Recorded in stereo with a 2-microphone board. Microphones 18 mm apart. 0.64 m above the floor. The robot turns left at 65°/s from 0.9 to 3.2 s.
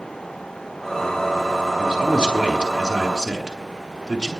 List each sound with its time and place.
1.8 s a man speaking: 60° right, 6 m; by 4.3 s 155° right, 6 m